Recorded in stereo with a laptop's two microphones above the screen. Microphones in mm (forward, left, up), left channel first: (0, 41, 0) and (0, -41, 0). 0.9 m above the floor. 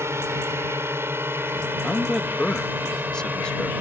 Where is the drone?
30° right (ahead or behind); by 3.8 s 20° right (ahead or behind).